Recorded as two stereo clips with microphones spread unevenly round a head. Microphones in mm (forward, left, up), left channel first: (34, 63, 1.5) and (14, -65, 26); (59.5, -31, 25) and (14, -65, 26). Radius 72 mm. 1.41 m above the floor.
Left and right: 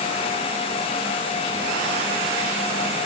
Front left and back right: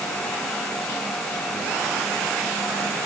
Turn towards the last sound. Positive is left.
No sound to turn to.